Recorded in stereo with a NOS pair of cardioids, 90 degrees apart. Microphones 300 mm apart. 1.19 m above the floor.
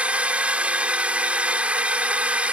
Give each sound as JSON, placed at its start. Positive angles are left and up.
{"t": 0.0, "sound": "a drone", "azimuth_deg": -5}